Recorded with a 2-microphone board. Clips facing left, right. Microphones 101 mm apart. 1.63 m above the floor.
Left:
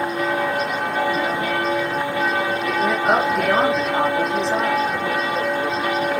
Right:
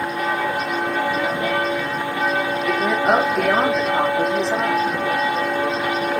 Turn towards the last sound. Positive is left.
turn(degrees=-5)  # may be behind; listen again after turning